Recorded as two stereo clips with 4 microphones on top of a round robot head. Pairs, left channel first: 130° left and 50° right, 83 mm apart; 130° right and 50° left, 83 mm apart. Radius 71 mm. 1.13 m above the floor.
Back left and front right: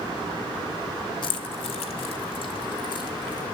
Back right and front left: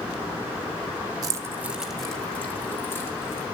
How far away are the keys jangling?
About 1.1 m.